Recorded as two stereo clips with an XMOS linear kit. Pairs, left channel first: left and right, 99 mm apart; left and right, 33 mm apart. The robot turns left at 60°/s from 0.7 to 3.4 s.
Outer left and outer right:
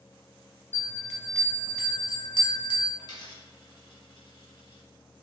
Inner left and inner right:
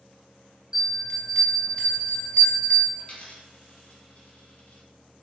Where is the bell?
150° right, 0.9 m; by 2.9 s 80° left, 0.9 m.